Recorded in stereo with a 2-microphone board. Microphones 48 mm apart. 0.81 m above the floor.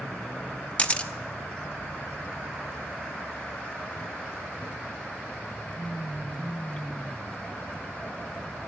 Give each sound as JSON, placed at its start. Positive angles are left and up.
{"t": 0.8, "sound": "a camera shutter", "side_deg": 25, "distance_m": 0.6}